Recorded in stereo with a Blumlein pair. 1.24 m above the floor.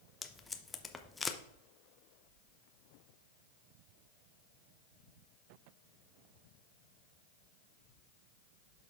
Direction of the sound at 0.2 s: 10° left.